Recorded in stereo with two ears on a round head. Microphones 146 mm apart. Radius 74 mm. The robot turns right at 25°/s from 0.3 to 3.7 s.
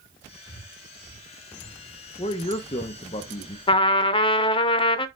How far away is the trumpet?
About 0.5 m.